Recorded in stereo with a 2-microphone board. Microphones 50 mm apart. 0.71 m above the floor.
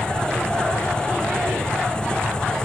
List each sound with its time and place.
0.0 s an engine running: 15° left (ahead or behind)